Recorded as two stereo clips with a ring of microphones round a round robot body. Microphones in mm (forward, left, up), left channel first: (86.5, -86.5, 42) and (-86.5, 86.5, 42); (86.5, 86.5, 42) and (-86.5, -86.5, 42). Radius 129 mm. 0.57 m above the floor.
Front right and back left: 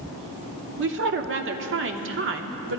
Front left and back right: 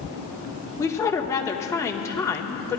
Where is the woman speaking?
120° left, 1.1 m.